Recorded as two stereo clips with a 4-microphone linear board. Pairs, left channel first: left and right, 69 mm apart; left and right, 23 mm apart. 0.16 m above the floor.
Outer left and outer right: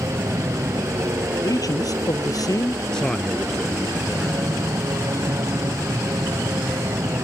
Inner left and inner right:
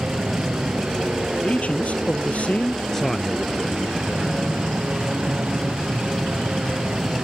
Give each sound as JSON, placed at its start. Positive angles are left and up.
{"t": 0.0, "sound": "an aircraft", "side_deg": -50}
{"t": 1.4, "sound": "a man speaking", "side_deg": 60}
{"t": 2.9, "sound": "a man speaking", "side_deg": 10}